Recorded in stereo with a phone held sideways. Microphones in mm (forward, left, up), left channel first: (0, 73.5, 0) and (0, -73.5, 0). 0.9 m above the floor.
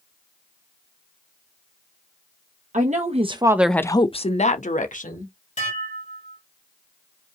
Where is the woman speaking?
55° right (ahead or behind), 1.0 m; by 5.3 s 65° left (ahead or behind), 1.6 m.